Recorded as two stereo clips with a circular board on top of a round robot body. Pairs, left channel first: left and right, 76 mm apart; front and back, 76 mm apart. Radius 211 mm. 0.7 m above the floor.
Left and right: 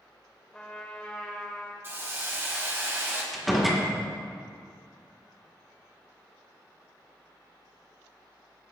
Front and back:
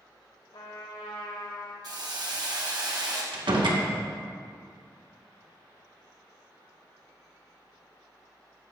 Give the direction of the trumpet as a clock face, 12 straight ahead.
12 o'clock.